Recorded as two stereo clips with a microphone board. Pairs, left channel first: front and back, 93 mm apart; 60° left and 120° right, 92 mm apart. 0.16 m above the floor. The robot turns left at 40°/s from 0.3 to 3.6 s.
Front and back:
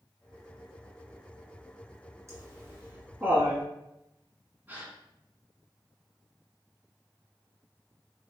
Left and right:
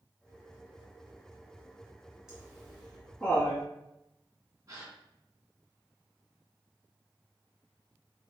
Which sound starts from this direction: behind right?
A gasp, at 4.7 s.